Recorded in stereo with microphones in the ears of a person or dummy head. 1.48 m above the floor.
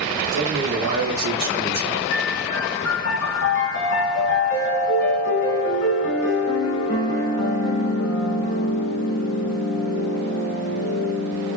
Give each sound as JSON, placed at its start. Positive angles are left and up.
{"t": 0.3, "sound": "a man speaking", "side_deg": -75, "distance_m": 1.2}
{"t": 2.1, "sound": "a piano", "side_deg": 60, "distance_m": 1.5}